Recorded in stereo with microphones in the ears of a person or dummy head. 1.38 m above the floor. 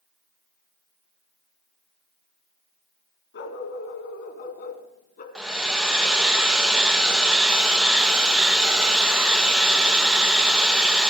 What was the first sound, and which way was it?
A dog barking, 60° left (ahead or behind).